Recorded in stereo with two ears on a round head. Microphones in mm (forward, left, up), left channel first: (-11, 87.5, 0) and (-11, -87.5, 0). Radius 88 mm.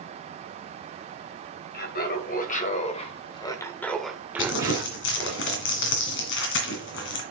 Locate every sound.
1.7 s laughter: 50° left (ahead or behind), 2 m; by 5.4 s 35° right (ahead or behind), 1.5 m
4.4 s crumpling: 65° left (ahead or behind), 2 m